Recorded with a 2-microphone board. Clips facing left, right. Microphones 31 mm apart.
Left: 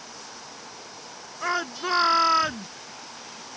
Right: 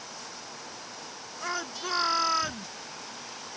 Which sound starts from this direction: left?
A shout, at 1.4 s.